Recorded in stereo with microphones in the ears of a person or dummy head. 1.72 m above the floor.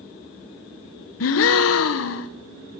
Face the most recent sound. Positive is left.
turn(degrees=70)  # may be behind; listen again after turning